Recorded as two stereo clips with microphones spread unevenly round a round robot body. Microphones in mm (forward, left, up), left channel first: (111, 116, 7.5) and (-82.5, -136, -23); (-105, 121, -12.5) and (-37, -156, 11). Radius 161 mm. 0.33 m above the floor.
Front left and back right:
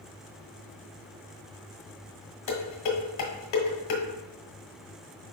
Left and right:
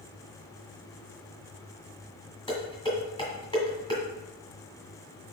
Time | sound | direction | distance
2.5 | dishes clattering | 30° left | 1.7 m